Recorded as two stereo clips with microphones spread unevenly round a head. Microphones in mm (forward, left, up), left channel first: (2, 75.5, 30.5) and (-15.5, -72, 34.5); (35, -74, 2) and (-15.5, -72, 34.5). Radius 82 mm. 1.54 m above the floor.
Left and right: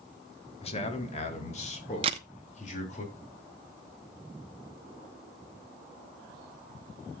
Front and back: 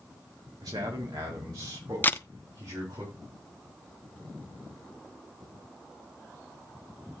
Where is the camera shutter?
85° right, 0.7 m.